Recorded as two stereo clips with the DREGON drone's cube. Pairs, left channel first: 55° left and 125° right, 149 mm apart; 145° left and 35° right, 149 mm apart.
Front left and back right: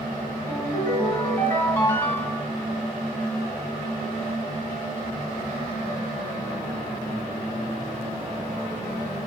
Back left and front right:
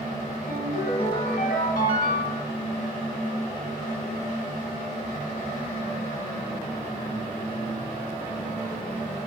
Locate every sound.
0.5 s a ringtone: 135° left, 2.5 m